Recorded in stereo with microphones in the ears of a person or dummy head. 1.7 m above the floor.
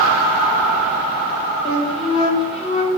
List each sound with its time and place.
1.6 s a flute: 35° left (ahead or behind), 0.8 m